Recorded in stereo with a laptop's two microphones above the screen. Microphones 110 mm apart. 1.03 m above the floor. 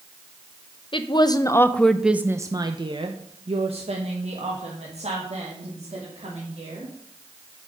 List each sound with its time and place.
0.9 s a woman speaking: 50° left (ahead or behind), 0.8 m; by 6.9 s 80° right, 3 m